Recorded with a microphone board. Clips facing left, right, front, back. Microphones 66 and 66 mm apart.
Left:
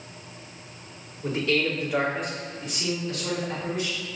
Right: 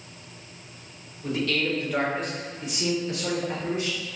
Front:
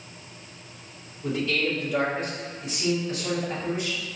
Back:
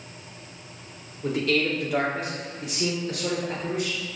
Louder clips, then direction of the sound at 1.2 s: Left 1 dB, back 2 dB; 145° left.